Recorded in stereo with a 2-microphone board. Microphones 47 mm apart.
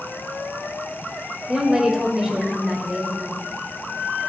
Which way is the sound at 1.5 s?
15° right (ahead or behind).